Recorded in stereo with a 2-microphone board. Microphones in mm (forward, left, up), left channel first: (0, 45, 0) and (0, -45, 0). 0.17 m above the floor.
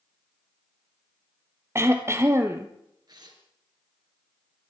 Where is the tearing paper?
50° right (ahead or behind), 3.5 m.